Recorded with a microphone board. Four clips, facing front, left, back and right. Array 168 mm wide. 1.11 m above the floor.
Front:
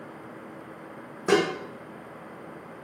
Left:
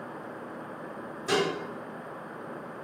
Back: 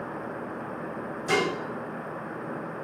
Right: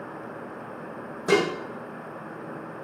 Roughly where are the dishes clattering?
Ahead right.